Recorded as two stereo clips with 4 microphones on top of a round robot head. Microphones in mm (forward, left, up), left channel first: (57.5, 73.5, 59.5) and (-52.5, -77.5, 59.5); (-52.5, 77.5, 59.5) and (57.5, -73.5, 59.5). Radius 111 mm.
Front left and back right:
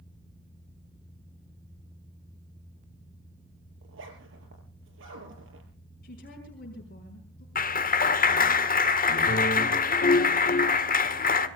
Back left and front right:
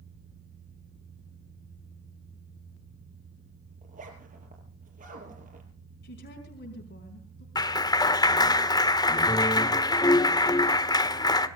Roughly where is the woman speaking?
Left.